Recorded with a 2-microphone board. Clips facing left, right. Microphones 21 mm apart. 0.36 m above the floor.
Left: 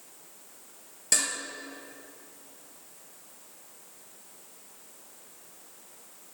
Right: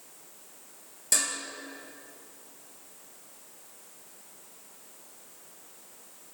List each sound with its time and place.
1.1 s dishes clattering: 15° left (ahead or behind), 4.5 m